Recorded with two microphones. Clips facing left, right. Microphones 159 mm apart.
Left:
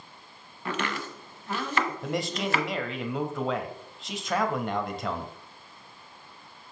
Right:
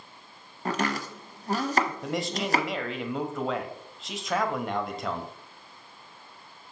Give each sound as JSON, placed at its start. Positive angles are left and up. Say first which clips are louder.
{"t": 0.7, "sound": "chopping", "louder": "right 3 dB", "side_deg": -40, "distance_m": 1.0}
{"t": 2.0, "sound": "a man speaking", "louder": "even", "side_deg": 0, "distance_m": 1.1}